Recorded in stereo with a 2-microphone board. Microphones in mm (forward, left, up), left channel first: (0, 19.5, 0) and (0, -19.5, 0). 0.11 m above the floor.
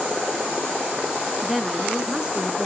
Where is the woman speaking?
Centre (ahead or behind), 1.1 m; by 2.7 s 25° right (ahead or behind), 1.2 m.